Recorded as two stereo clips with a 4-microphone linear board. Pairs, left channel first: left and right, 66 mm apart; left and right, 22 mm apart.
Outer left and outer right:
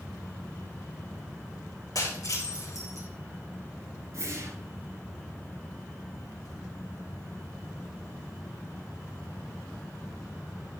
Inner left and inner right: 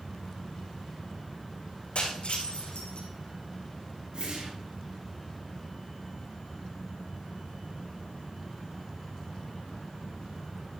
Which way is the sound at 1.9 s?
65° left (ahead or behind).